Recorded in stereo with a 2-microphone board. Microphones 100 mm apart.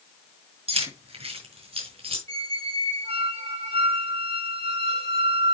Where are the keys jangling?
80° right, 4.5 m.